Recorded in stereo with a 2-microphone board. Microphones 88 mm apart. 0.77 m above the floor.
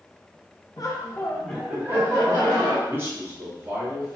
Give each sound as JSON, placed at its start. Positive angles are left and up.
{"t": 0.8, "sound": "laughter", "side_deg": 45, "distance_m": 0.8}
{"t": 2.9, "sound": "a man speaking", "side_deg": -30, "distance_m": 0.9}